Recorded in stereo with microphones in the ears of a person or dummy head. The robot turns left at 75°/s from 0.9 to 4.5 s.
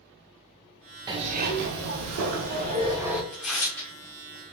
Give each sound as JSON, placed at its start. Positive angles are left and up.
{"t": 1.1, "sound": "a zipper", "azimuth_deg": -20, "distance_m": 0.5}
{"t": 3.3, "sound": "tearing paper", "side_deg": -5, "distance_m": 0.6}